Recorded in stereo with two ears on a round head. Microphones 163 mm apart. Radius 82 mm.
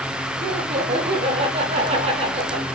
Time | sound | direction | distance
0.4 | laughter | 35° right (ahead or behind) | 4 m